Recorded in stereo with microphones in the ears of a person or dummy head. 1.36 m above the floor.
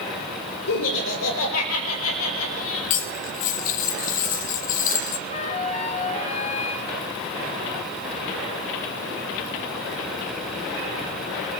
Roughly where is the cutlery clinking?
Left.